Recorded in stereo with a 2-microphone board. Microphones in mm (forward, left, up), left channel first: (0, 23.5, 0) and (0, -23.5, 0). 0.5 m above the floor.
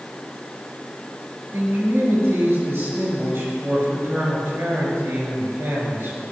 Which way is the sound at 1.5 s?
55° right (ahead or behind).